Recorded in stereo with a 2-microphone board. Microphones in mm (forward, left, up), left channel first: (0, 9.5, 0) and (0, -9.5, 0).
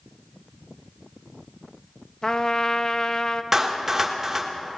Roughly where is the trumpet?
Left.